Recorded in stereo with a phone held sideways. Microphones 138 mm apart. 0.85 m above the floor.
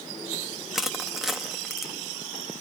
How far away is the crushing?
About 0.8 m.